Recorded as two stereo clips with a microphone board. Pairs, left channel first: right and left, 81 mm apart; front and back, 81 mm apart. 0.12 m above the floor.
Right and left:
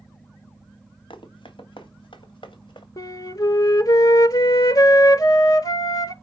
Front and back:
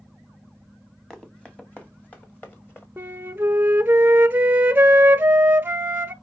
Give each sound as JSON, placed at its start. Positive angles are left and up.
{"t": 1.1, "sound": "running footsteps", "azimuth_deg": -80, "distance_m": 1.7}
{"t": 3.0, "sound": "a flute", "azimuth_deg": -120, "distance_m": 0.6}